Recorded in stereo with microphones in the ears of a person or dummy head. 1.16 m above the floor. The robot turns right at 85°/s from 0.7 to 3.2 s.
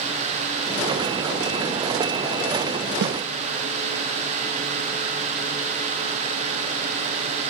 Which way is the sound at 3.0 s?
60° right (ahead or behind).